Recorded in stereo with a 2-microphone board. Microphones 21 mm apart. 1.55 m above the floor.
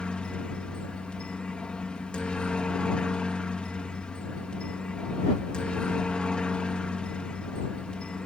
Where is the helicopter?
55° left (ahead or behind).